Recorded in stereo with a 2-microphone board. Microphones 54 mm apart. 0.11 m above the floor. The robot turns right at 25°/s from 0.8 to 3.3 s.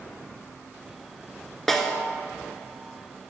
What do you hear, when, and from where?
1.7 s a snare drum: 5° left (ahead or behind), 0.8 m; by 2.0 s 10° left (ahead or behind), 0.8 m